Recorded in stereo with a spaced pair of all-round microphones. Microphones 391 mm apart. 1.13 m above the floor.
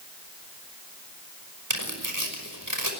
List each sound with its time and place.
1.7 s tearing paper: 50° right (ahead or behind), 5.5 m